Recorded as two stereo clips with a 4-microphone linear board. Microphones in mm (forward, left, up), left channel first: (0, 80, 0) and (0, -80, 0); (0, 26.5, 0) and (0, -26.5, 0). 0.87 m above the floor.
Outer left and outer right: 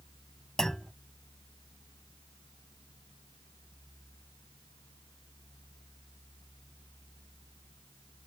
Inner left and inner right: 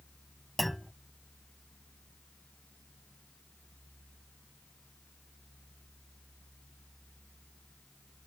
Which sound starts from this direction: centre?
A clunk, at 0.6 s.